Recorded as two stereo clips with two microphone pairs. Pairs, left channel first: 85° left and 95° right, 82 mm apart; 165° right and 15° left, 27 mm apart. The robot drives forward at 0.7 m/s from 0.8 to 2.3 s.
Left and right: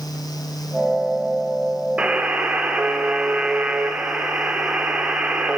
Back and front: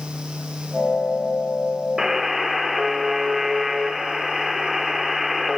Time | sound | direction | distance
2.0 | a buzzer | 40° right | 1.3 m